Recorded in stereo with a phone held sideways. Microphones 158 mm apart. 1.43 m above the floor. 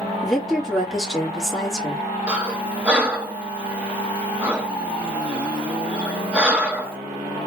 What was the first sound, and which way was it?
A woman speaking, centre (ahead or behind).